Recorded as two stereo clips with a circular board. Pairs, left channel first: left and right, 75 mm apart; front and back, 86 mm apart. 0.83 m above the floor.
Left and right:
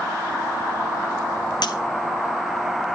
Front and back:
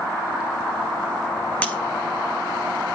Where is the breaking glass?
75° left, 1.2 m.